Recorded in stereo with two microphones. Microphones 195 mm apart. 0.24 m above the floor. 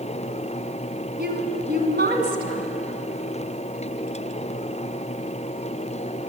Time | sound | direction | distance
1.2 | a woman speaking | 60° right (ahead or behind) | 1.9 m